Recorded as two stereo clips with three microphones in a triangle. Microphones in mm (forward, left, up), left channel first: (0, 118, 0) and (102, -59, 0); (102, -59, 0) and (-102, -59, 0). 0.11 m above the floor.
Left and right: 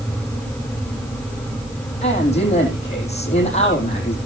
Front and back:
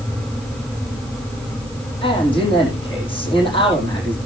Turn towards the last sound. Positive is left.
turn(degrees=65)